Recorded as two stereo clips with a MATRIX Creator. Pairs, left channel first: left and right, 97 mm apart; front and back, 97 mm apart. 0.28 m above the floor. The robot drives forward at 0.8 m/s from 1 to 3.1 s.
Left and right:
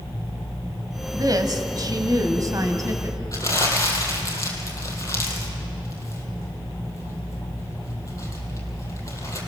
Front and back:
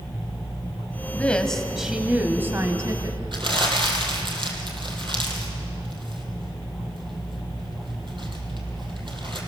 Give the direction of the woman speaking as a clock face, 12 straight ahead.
2 o'clock.